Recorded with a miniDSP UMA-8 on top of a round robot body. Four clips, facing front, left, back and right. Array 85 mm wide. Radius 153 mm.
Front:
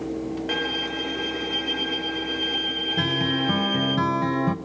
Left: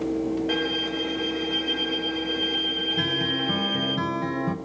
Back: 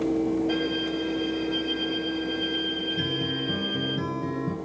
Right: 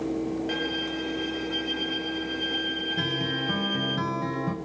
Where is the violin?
5° left, 1.8 m.